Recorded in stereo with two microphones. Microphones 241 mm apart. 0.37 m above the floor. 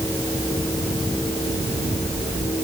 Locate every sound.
Only background noise.